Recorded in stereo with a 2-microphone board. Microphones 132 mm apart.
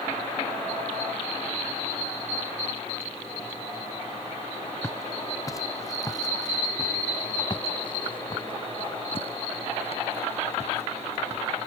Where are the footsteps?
20° left (ahead or behind); by 11.4 s 55° left (ahead or behind).